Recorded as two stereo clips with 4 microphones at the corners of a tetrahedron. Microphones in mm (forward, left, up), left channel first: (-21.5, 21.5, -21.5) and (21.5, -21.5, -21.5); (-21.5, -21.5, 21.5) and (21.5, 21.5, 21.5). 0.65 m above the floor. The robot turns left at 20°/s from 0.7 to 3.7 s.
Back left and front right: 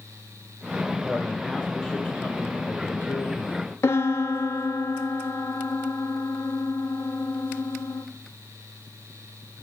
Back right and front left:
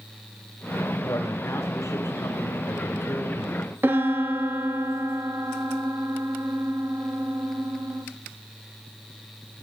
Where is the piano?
95° left, 0.7 m.